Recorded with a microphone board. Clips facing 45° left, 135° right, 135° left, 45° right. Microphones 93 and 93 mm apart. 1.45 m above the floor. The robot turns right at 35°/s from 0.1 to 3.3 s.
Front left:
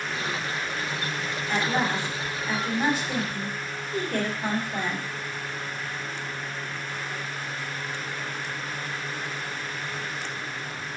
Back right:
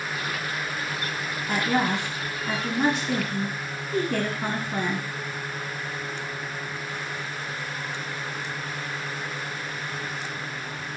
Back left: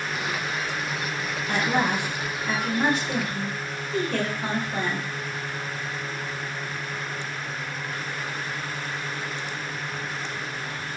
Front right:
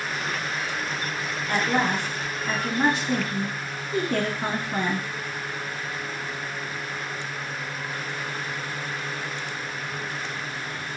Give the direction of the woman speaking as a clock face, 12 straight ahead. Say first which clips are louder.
Back right 2 dB, even; 5 o'clock.